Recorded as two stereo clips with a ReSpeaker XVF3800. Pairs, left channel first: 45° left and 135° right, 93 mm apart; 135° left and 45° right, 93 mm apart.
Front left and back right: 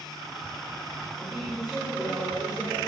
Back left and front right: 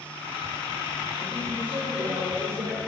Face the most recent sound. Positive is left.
turn(degrees=-50)